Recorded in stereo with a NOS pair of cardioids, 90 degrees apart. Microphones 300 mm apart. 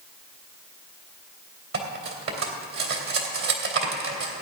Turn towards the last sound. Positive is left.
turn(degrees=-45)